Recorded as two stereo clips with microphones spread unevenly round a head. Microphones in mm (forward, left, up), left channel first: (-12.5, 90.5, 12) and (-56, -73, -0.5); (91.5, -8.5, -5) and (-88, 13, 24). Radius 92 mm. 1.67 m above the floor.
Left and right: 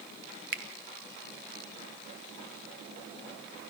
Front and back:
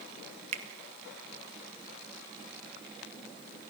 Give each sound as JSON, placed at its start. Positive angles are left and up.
{"t": 0.5, "sound": "a finger snap", "azimuth_deg": -135, "distance_m": 1.7}